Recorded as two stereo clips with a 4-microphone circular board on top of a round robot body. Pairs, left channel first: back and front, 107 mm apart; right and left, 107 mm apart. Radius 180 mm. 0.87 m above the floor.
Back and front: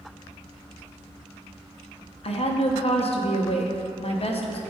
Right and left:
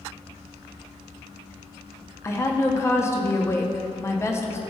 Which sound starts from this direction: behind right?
A woman speaking, at 2.2 s.